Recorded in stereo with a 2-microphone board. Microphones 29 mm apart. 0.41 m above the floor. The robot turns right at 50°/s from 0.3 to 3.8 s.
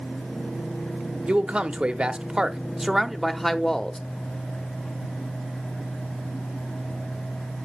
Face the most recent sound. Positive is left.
turn(degrees=25)